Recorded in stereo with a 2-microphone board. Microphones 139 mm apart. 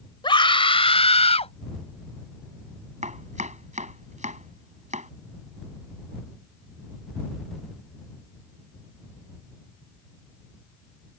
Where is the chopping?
60° right (ahead or behind).